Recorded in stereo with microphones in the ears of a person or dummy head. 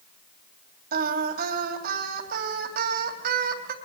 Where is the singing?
55° right (ahead or behind), 3 m.